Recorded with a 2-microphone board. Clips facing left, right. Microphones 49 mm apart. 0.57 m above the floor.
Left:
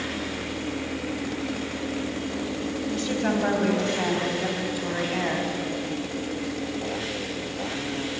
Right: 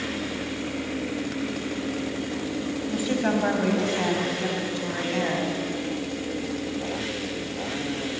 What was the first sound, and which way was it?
A woman speaking, 10° right (ahead or behind).